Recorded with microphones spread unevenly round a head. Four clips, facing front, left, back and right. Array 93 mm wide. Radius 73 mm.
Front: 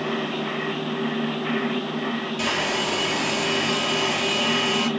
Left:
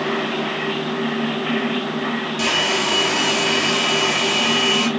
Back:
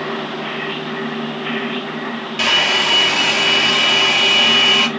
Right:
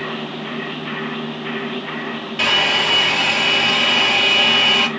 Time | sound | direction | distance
2.4 | a hair dryer | 155° right | 1.9 m